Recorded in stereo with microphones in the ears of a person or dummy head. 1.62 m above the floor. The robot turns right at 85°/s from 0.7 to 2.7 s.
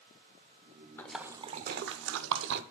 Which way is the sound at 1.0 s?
15° left (ahead or behind).